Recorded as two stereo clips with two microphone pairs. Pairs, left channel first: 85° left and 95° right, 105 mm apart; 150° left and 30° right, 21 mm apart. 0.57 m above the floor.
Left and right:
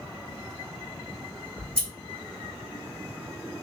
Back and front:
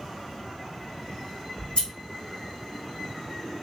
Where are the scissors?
165° left, 1.9 m.